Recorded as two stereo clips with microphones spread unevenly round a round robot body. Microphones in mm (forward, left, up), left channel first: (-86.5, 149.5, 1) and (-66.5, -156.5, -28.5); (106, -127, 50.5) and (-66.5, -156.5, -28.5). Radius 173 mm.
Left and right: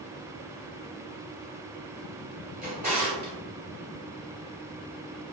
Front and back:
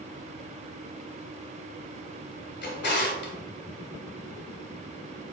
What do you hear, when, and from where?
2.6 s a drawer: 15° right, 2 m